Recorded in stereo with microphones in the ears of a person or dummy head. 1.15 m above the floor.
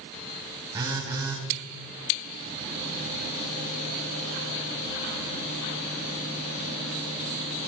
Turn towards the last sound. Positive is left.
turn(degrees=-30)  # may be behind; listen again after turning